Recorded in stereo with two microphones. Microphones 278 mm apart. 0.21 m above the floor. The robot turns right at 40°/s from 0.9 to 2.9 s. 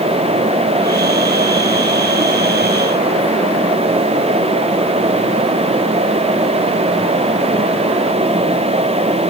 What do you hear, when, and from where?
Only background noise.